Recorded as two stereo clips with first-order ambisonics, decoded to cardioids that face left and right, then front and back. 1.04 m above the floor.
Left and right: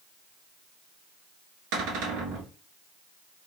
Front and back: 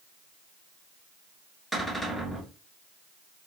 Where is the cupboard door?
90° right, 1.3 m.